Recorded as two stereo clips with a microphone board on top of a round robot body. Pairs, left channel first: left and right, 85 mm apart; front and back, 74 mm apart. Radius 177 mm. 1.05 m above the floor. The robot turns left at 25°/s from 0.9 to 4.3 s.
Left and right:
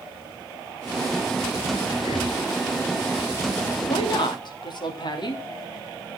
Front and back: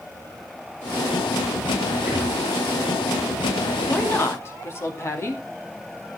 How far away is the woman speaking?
About 3 m.